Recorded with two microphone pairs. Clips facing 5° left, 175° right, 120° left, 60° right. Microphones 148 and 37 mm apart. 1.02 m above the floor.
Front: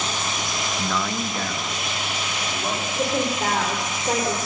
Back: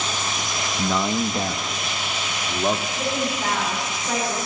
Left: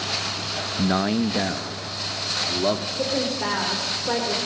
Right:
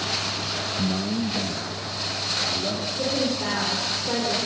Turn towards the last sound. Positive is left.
turn(degrees=50)